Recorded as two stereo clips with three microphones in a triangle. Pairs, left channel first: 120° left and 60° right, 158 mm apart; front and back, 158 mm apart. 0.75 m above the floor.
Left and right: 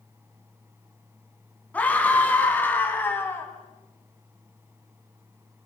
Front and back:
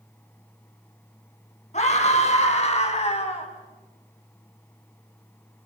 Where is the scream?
40° left, 6 m; by 3.5 s 45° left, 5.5 m.